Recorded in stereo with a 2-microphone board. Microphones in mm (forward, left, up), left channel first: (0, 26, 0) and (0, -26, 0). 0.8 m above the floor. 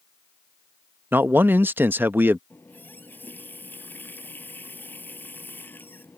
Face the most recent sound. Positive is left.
turn(degrees=35)  # may be behind; listen again after turning